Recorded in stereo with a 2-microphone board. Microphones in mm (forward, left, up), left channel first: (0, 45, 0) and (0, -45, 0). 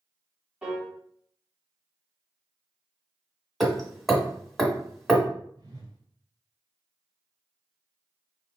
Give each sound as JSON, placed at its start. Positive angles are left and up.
{"t": 0.6, "sound": "a piano", "side_deg": -5, "distance_m": 1.7}
{"t": 3.6, "sound": "hammering", "side_deg": 0, "distance_m": 1.1}
{"t": 5.6, "sound": "a whoosh", "side_deg": -50, "distance_m": 2.0}